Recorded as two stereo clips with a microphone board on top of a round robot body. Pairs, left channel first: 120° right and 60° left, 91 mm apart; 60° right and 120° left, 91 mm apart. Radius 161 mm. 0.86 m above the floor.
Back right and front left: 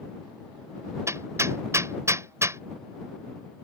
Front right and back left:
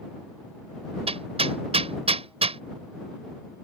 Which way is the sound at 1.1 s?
120° left.